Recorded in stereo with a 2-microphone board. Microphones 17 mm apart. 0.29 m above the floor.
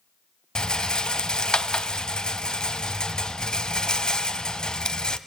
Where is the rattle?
55° left (ahead or behind), 0.7 m.